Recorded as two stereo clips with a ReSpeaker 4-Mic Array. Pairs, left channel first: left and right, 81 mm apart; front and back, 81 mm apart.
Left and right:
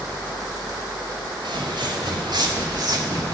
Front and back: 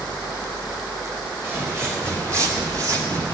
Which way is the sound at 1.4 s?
115° right.